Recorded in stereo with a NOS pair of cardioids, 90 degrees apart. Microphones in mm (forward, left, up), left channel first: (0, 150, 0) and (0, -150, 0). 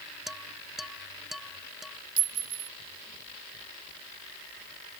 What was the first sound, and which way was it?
Dishes clattering, straight ahead.